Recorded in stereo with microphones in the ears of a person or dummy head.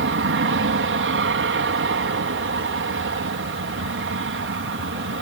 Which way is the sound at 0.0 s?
60° right (ahead or behind).